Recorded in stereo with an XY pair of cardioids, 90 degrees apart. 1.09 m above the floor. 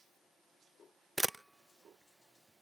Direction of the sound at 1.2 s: 10° right.